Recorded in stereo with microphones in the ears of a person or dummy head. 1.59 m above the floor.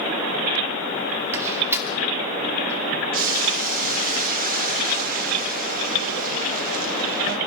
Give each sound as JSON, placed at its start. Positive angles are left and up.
{"t": 1.3, "sound": "a door slam", "side_deg": -15, "distance_m": 2.5}
{"t": 3.1, "sound": "boiling", "side_deg": -50, "distance_m": 2.5}